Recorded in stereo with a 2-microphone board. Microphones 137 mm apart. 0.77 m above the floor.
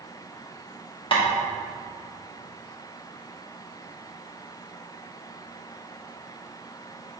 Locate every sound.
1.1 s tapping: 40° left (ahead or behind), 1.3 m